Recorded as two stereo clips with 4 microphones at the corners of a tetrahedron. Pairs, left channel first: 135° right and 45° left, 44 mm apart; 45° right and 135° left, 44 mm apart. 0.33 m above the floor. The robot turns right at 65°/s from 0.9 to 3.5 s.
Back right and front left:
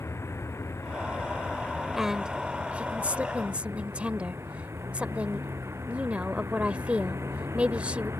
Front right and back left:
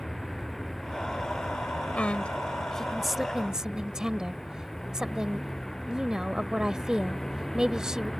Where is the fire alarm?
I don't hear a fire alarm.